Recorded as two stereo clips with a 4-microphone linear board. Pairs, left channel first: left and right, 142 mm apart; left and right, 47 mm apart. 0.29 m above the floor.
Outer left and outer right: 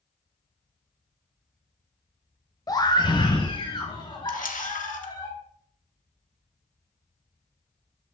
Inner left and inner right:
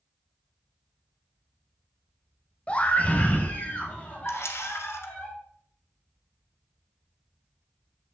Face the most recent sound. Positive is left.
turn(degrees=70)  # may be behind; listen again after turning